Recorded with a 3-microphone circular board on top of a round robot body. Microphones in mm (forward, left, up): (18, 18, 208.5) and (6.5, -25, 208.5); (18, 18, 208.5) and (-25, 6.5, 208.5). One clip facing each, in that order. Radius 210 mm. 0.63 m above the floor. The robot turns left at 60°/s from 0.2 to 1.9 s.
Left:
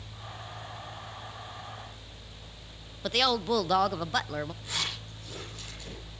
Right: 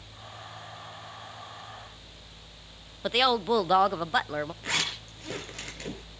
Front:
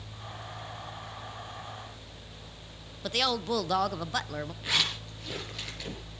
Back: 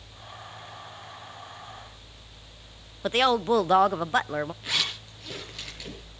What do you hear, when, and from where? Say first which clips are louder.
3.0 s a woman speaking: right 3 dB, back 7 dB; 165° right, 0.7 m
4.6 s a zipper: right 4 dB, even; 75° right, 5.5 m